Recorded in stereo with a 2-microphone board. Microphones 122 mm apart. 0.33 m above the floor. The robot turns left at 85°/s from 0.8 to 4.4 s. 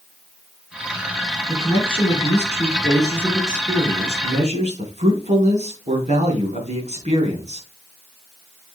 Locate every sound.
1.5 s a man speaking: 160° left, 4 m; by 7.7 s 85° right, 4 m